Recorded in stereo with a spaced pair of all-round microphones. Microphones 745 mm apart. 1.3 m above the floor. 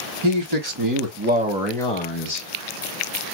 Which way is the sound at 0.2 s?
40° right (ahead or behind).